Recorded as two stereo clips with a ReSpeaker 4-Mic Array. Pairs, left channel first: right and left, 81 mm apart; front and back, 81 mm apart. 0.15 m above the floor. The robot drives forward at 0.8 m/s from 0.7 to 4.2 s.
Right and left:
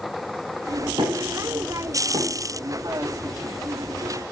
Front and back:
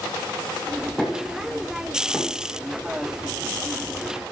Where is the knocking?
85° left, 4.5 m; by 2.5 s 100° left, 5 m.